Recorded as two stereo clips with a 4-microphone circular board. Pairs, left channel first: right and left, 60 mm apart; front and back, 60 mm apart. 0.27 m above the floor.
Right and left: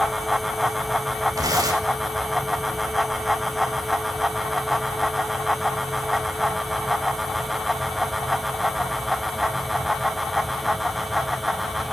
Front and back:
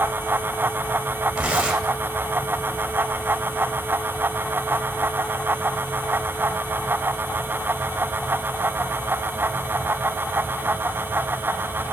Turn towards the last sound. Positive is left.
turn(degrees=105)